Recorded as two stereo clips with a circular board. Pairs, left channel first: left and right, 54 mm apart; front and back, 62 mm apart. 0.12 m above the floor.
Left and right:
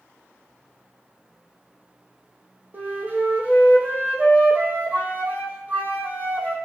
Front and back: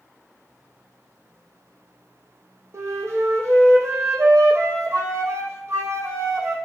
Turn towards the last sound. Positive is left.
turn(degrees=-140)